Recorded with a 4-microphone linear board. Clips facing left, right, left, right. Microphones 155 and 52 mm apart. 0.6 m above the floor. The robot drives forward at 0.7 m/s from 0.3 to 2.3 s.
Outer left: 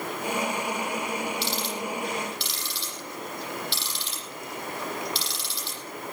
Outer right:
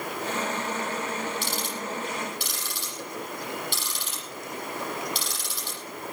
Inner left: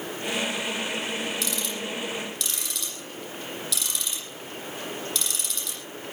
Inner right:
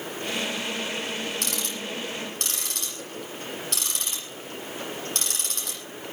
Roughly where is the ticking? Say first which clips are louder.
Outer left 2 dB, inner left 1 dB; right.